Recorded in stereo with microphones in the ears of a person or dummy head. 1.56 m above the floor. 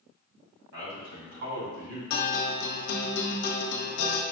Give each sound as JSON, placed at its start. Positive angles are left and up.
{"t": 0.7, "sound": "a man speaking", "side_deg": -65, "distance_m": 2.0}
{"t": 2.1, "sound": "a guitar", "side_deg": 65, "distance_m": 0.8}